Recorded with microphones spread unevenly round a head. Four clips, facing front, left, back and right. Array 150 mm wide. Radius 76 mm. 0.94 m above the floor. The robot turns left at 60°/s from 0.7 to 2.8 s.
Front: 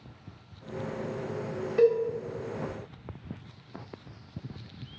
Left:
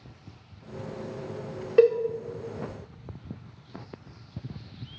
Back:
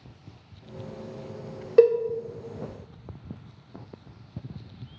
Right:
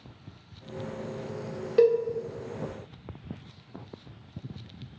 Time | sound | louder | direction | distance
1.8 | a cowbell | left 2 dB, back 5 dB | 170° left | 0.6 m